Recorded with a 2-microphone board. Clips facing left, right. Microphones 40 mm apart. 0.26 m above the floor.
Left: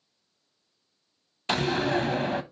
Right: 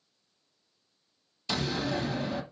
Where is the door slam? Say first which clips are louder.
Left 6 dB; 50° left (ahead or behind), 1.1 m.